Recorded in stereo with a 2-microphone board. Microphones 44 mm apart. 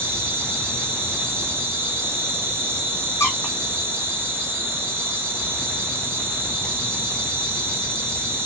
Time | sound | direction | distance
0.0 | an insect | 50° right (ahead or behind) | 1.2 m
3.2 | a squeak | 85° left | 0.6 m